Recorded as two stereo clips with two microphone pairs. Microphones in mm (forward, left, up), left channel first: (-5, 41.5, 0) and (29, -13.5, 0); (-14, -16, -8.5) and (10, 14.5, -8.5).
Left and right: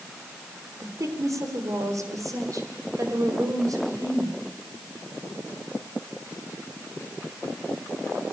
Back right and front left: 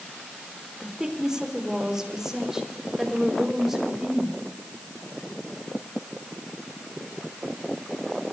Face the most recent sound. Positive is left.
turn(degrees=-30)